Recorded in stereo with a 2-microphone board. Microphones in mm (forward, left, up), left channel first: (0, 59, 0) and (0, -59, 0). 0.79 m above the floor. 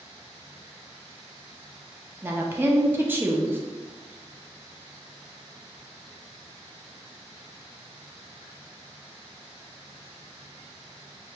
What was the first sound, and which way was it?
A woman speaking, 15° right (ahead or behind).